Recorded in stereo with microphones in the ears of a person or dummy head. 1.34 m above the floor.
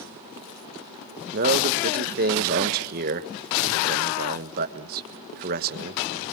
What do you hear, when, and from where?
1.3 s a man speaking: 50° right (ahead or behind), 1.4 m